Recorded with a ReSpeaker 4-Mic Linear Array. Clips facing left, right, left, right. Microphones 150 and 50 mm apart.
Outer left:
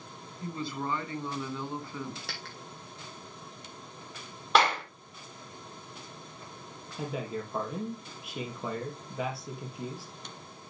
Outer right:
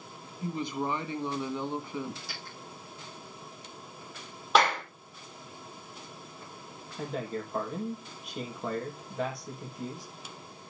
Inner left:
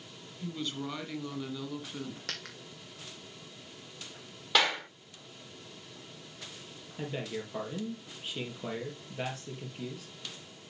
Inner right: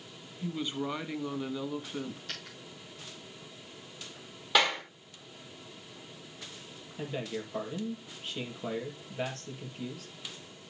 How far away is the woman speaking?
About 1.4 m.